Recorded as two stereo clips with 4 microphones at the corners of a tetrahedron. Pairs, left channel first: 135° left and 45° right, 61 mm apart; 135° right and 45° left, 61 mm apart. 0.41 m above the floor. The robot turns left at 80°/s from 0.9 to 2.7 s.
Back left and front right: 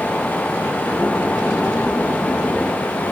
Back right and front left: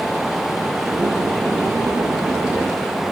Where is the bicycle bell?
No bicycle bell in this recording.